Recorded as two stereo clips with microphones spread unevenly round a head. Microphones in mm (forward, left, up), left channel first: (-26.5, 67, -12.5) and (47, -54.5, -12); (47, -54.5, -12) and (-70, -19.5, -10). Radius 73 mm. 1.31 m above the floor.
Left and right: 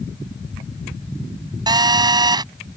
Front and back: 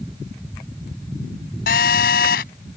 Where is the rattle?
No rattle in this recording.